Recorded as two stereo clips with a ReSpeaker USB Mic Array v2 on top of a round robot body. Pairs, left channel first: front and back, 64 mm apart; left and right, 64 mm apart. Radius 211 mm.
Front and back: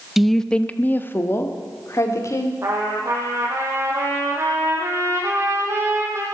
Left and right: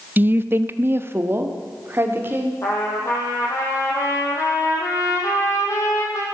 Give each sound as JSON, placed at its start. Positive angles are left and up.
{"t": 0.2, "sound": "a woman speaking", "azimuth_deg": -100, "distance_m": 1.1}
{"t": 2.6, "sound": "a trumpet", "azimuth_deg": 130, "distance_m": 4.5}